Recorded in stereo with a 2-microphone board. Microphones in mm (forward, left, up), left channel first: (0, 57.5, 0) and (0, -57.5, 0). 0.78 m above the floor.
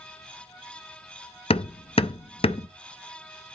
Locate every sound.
1.5 s hammering: 55° left (ahead or behind), 0.5 m